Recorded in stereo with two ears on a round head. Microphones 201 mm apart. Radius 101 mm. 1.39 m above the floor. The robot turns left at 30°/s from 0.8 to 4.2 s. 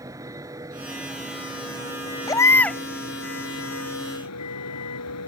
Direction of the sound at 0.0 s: 165° right.